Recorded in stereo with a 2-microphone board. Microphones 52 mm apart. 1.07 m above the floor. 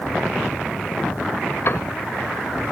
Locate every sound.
1.6 s a piano: 55° left (ahead or behind)